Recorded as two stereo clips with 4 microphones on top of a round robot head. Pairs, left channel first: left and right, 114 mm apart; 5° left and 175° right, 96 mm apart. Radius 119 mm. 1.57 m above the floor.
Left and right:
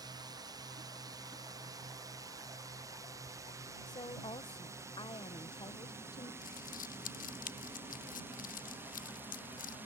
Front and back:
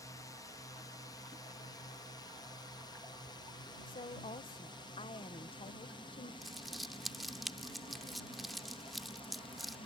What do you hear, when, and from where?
0.0 s a drone: 40° right; by 9.9 s 15° right
3.9 s a woman speaking: 35° left
6.4 s crumpling: 95° left